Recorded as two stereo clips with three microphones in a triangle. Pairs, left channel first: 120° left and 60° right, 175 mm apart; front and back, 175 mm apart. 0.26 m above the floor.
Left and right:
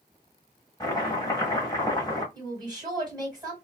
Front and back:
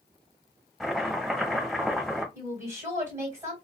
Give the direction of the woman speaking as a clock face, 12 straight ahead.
4 o'clock.